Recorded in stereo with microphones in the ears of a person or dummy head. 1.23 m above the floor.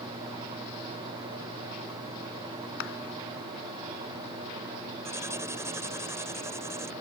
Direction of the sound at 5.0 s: 10° right (ahead or behind).